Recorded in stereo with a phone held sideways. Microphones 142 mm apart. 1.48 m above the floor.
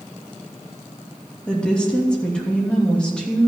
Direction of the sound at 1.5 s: 5° left (ahead or behind).